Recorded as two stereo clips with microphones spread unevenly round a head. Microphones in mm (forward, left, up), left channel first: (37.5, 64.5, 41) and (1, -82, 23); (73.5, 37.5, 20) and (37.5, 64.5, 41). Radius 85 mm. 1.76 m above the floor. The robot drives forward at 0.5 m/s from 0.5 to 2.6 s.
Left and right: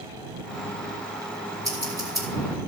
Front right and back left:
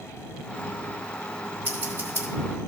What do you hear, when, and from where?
1.6 s scissors: 175° right, 2.5 m; by 2.3 s straight behind, 3 m